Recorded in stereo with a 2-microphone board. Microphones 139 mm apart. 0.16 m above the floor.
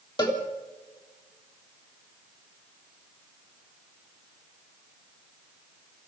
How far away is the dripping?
No dripping in this recording.